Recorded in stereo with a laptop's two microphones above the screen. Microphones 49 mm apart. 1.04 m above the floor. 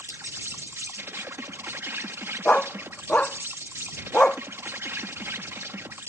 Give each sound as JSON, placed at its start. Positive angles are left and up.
{"t": 0.0, "sound": "an insect", "side_deg": -55}
{"t": 2.5, "sound": "a dog barking", "side_deg": 30}